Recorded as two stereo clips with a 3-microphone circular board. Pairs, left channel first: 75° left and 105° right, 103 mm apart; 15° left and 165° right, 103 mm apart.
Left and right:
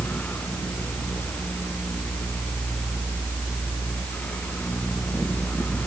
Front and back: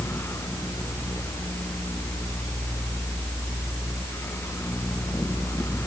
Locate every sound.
Only background noise.